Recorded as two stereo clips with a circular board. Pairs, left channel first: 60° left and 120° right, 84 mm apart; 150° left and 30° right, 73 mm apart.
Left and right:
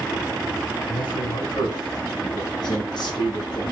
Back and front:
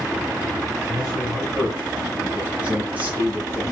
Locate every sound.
0.9 s a man speaking: 55° left, 5.5 m; by 3.6 s 35° left, 5.5 m